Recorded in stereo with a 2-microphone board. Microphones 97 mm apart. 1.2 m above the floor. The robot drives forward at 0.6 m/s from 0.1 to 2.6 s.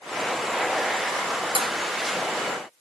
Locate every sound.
1.6 s dishes clattering: 60° right (ahead or behind), 0.8 m; by 1.7 s 65° right (ahead or behind), 0.8 m